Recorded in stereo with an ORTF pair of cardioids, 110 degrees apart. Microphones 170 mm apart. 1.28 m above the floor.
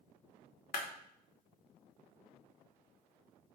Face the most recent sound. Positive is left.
turn(degrees=60)